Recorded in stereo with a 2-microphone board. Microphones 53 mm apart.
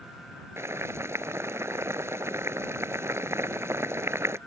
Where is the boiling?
55° right (ahead or behind).